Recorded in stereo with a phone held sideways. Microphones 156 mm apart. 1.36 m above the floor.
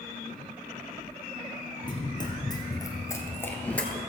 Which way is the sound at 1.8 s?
30° left (ahead or behind).